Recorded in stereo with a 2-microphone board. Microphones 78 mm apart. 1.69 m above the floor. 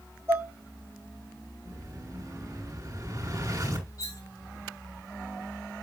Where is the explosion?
45° right (ahead or behind), 5 m.